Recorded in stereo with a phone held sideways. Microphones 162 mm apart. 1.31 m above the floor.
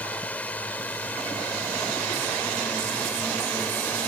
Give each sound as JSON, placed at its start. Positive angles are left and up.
{"t": 0.0, "sound": "a drone", "side_deg": 10}